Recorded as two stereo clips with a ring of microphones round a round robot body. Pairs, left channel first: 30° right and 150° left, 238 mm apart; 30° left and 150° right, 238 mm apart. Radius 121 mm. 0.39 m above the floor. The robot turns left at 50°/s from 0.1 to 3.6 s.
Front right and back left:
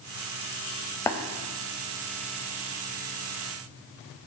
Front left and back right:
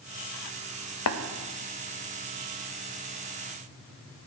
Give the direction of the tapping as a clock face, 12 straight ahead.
10 o'clock.